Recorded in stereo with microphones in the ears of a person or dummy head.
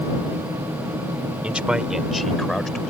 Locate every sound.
1.4 s a man speaking: 5° right (ahead or behind); by 2.9 s 5° left (ahead or behind)